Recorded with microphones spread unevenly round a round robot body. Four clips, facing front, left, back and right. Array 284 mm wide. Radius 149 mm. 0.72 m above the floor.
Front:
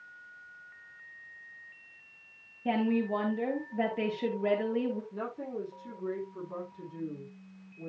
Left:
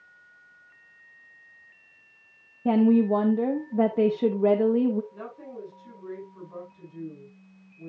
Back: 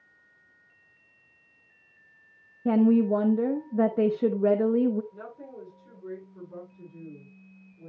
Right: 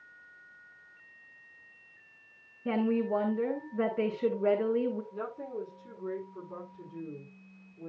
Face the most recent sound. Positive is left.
turn(degrees=-30)